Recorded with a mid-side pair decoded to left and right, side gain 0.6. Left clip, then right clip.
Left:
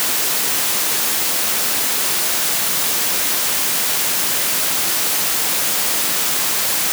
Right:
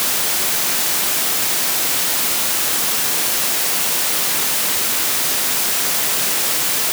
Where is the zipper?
I don't hear a zipper.